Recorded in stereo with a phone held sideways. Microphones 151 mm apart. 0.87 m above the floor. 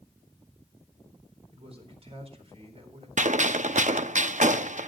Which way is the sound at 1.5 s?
45° right (ahead or behind).